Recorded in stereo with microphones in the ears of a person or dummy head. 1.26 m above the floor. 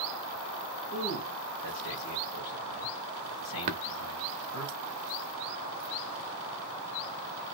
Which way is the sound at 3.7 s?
40° right (ahead or behind).